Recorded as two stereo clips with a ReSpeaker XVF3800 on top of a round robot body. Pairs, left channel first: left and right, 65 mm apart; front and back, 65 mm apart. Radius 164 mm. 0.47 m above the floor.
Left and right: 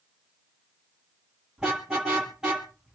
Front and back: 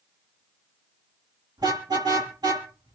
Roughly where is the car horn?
Behind.